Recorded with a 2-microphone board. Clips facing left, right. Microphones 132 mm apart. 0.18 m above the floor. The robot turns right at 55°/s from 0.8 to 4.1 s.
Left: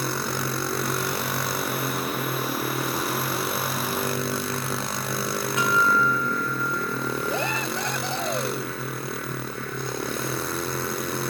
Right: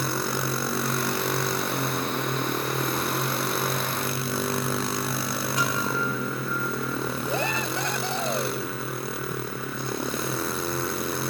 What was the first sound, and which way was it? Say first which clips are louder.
A guitar: left 7 dB; 40° right (ahead or behind).